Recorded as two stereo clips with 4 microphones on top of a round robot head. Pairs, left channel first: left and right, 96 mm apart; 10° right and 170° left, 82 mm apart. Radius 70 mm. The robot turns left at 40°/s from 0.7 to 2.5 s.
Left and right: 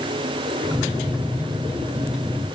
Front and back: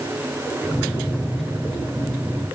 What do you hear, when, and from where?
Only background noise.